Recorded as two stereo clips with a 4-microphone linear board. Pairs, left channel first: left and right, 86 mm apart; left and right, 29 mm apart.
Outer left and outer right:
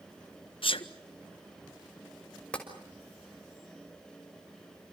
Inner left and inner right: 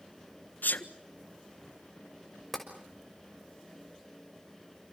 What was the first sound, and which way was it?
A sneeze, 85° left.